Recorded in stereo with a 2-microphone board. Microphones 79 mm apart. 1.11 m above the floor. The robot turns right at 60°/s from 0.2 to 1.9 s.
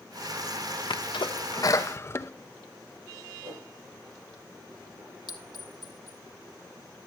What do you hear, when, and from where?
0.9 s a sneeze: 85° left, 0.7 m; by 2.3 s 35° left (ahead or behind), 0.7 m
3.4 s a whoosh: 80° right, 8 m
5.3 s a clink: 70° left (ahead or behind), 1.4 m